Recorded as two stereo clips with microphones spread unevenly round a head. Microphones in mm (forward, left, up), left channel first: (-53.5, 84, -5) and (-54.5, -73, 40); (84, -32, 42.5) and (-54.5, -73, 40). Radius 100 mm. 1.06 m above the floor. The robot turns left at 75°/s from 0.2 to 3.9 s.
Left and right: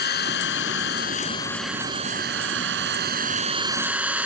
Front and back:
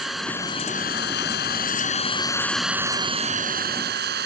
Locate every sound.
0.0 s an engine running: 105° left; by 4.3 s 170° right